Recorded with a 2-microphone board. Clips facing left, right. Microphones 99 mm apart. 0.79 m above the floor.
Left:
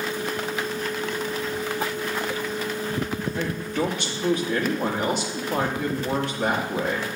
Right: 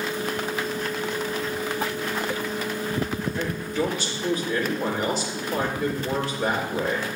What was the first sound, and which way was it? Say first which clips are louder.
A man speaking: left 1 dB; 60° left (ahead or behind).